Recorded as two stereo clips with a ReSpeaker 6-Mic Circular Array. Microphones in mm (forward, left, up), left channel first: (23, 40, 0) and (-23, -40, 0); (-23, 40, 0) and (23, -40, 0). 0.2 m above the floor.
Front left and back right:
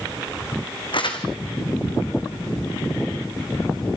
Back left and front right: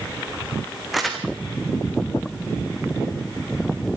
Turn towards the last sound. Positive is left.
turn(degrees=30)